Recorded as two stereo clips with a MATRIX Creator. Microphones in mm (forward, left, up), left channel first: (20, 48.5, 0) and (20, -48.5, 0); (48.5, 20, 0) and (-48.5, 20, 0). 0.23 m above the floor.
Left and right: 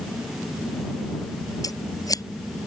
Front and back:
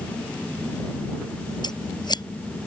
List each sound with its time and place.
1.6 s scissors: 40° left